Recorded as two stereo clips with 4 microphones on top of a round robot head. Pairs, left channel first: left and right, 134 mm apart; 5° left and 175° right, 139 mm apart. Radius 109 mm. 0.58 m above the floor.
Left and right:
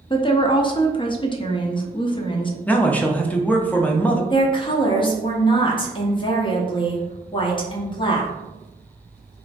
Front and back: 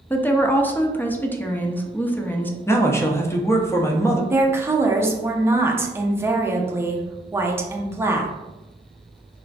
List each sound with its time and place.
0.1 s a woman speaking: 75° left, 0.6 m
2.7 s a man speaking: 30° left, 0.6 m
4.3 s a woman speaking: 120° left, 0.8 m